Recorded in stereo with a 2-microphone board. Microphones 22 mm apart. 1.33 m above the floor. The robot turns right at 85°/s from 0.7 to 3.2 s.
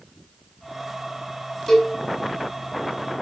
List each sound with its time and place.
1.7 s a cowbell: 5° left (ahead or behind), 2.5 m; by 1.9 s 20° left (ahead or behind), 2.5 m